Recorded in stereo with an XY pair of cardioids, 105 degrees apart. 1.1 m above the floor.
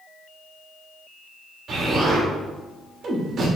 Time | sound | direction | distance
1.7 | an explosion | 55° right | 3 m